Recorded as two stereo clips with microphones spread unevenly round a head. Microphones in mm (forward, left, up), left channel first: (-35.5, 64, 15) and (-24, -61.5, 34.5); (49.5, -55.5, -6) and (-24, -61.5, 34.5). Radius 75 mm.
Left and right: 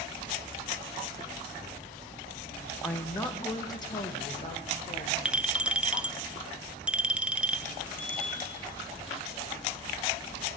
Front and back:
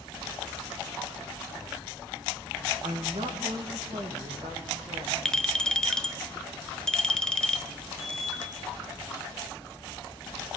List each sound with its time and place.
2.8 s a woman speaking: 175° left, 2 m; by 5.2 s 135° left, 3.5 m
5.2 s a clink: 140° right, 0.7 m
8.0 s a bicycle bell: 120° left, 6 m